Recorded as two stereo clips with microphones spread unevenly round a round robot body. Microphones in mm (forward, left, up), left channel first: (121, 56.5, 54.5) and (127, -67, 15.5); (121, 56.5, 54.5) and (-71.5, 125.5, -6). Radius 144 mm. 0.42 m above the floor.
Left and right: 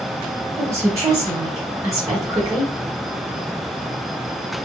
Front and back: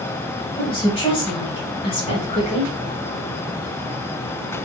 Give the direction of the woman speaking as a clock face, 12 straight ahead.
3 o'clock.